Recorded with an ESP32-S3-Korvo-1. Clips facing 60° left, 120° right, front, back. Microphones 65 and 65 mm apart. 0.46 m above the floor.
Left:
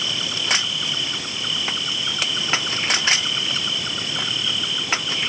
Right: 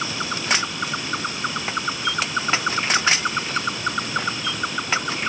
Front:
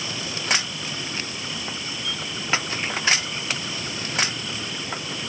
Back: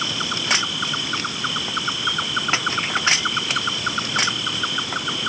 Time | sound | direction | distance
0.0 | an insect | 165° right | ?